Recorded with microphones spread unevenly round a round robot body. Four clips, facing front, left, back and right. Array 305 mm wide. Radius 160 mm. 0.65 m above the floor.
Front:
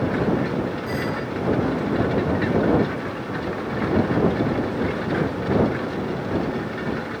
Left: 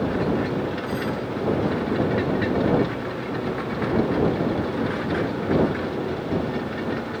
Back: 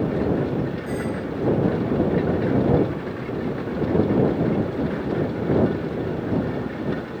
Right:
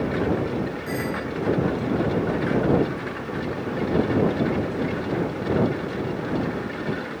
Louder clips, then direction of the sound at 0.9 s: Left 1 dB, front 1 dB; 120° right.